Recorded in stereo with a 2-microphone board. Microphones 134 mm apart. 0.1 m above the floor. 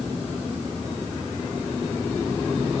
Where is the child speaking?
No child speaking in this recording.